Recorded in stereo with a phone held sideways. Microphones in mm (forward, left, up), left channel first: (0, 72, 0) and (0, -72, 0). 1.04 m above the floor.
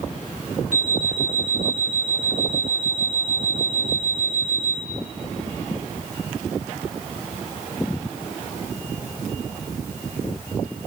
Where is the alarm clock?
50° right (ahead or behind), 8.5 m.